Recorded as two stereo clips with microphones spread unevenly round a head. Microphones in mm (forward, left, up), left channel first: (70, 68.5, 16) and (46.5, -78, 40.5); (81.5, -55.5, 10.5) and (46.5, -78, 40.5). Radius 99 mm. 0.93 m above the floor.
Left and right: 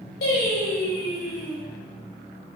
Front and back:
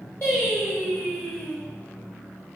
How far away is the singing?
About 4 m.